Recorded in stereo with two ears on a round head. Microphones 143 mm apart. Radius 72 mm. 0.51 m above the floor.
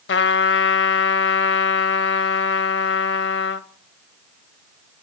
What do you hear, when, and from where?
0.1 s a trumpet: 80° left, 0.6 m